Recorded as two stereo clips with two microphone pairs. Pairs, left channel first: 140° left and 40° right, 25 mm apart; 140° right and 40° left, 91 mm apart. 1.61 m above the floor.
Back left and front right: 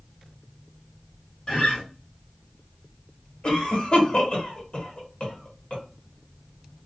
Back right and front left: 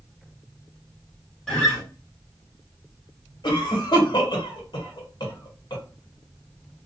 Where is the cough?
175° right, 1.1 m.